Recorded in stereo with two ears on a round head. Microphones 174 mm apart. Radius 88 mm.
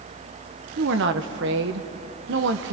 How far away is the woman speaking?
About 0.9 m.